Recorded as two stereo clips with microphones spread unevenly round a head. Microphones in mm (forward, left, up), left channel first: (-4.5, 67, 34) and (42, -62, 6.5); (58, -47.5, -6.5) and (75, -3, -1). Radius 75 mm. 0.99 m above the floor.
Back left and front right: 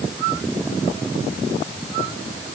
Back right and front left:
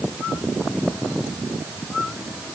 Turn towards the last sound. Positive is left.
No sound to turn to.